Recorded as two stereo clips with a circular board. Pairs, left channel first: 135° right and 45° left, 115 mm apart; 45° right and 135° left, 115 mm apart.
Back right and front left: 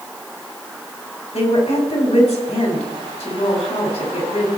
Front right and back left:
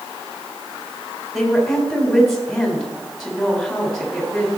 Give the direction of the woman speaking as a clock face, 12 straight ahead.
4 o'clock.